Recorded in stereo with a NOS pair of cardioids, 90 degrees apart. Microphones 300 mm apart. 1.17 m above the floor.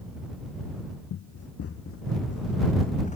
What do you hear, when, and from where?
1.1 s running footsteps: 65° left; by 3.2 s 25° left